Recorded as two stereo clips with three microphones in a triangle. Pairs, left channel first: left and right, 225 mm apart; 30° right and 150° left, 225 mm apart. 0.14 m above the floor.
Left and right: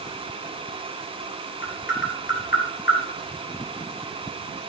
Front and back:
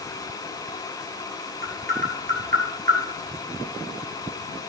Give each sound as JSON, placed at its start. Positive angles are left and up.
{"t": 1.6, "sound": "tapping", "azimuth_deg": 115, "distance_m": 2.5}